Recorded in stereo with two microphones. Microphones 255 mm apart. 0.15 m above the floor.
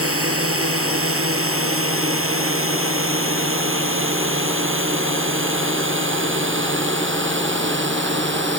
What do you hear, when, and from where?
0.0 s a drone: 60° right (ahead or behind); by 8.6 s 45° right (ahead or behind)